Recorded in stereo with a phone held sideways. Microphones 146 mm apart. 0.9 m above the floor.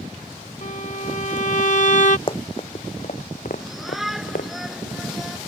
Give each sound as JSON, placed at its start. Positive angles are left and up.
{"t": 0.6, "sound": "a violin", "side_deg": 55}
{"t": 2.3, "sound": "running footsteps", "side_deg": 35}
{"t": 3.6, "sound": "a shout", "side_deg": 0}